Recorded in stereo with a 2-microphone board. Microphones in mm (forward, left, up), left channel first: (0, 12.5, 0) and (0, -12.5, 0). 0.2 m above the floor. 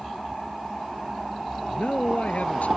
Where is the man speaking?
65° left (ahead or behind).